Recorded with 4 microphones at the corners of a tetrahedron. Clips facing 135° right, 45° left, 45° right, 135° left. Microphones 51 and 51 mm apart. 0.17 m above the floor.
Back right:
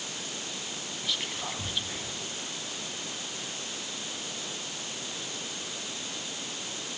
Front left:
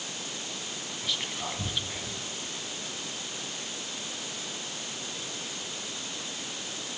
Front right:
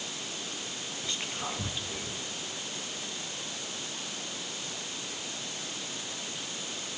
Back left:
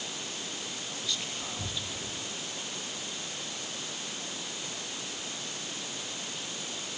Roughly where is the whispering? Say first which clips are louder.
Even, front right 3 dB; ahead right.